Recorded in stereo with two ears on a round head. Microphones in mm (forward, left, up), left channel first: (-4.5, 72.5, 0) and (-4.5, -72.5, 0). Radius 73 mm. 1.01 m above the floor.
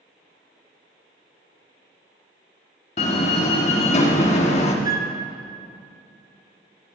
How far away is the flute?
About 0.8 m.